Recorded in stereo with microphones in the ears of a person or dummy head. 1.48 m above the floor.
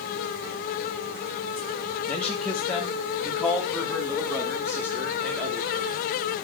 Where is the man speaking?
5° left (ahead or behind), 1.3 m; by 6.0 s 15° right (ahead or behind), 3.5 m.